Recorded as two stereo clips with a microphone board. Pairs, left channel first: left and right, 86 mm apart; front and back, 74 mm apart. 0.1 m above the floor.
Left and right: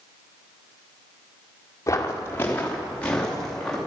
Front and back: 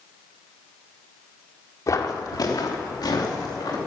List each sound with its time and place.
1.9 s footsteps: 35° left, 2.5 m; by 3.8 s 5° left, 4.5 m